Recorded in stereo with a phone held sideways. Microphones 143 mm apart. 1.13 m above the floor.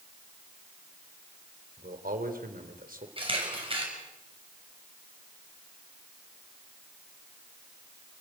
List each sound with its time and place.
1.8 s a man speaking: 90° right, 3.5 m
3.2 s a camera shutter: 40° right (ahead or behind), 6.5 m